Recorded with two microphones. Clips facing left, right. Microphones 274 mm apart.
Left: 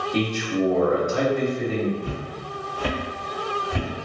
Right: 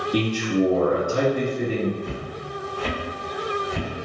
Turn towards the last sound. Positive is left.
turn(degrees=85)